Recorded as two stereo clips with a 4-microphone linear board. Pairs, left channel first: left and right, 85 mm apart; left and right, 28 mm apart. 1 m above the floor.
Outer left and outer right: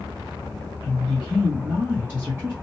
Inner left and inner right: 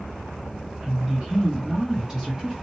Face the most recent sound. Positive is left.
turn(degrees=-20)  # may be behind; listen again after turning